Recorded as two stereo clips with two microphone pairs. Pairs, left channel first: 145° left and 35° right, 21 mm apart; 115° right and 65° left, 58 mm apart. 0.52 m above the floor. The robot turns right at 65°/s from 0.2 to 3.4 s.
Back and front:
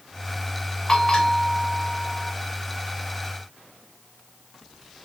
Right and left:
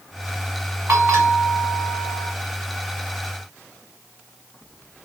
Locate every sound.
0.9 s a bell: 90° left, 2 m; by 2.3 s straight behind, 2 m